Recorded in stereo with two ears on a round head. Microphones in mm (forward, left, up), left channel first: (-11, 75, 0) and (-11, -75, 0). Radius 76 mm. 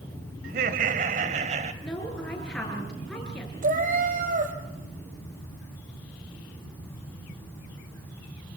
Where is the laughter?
55° right (ahead or behind), 2 m; by 1.7 s 40° right (ahead or behind), 2.5 m.